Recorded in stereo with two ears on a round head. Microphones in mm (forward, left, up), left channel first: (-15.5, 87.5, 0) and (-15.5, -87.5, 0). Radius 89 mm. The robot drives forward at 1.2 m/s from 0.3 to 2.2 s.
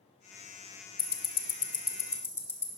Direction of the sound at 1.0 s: 20° left (ahead or behind).